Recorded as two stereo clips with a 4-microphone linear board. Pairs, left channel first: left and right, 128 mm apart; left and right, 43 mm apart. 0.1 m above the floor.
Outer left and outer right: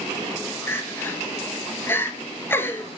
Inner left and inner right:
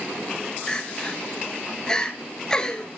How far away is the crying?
About 1.7 m.